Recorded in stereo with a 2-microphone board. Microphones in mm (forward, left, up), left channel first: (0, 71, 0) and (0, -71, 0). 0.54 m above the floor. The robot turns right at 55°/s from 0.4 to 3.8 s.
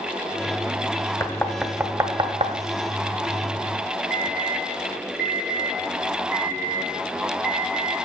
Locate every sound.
1.2 s knocking: 20° left (ahead or behind), 0.9 m; by 2.5 s 50° right (ahead or behind), 0.9 m
4.1 s an alarm: 65° left (ahead or behind), 2.5 m